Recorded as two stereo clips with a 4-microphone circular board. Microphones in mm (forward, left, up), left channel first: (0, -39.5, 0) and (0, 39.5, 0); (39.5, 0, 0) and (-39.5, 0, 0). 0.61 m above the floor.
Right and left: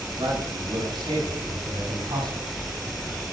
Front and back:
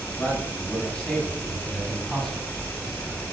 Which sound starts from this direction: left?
A man speaking, at 0.2 s.